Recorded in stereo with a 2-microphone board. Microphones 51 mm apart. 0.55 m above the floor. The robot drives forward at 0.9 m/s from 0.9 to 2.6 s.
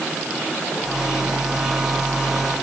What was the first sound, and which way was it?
Only background noise.